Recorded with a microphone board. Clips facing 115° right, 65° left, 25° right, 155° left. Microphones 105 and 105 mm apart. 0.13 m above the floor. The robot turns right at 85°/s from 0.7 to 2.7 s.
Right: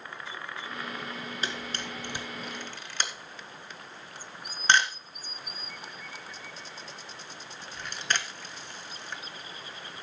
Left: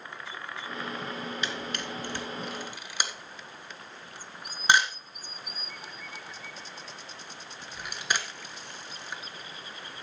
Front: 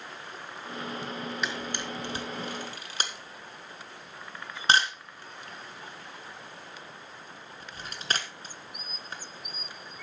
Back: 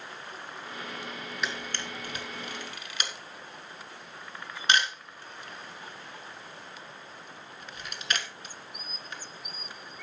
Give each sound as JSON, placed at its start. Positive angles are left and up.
{"t": 1.4, "sound": "a camera shutter", "azimuth_deg": -110, "distance_m": 1.4}